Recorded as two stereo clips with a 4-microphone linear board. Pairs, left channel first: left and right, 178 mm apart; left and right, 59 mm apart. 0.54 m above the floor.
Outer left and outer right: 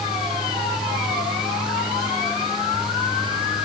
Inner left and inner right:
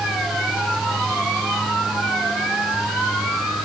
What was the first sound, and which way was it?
Only background noise.